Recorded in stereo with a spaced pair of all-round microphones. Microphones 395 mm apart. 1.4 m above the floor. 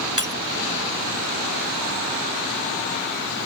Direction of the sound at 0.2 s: 45° right (ahead or behind).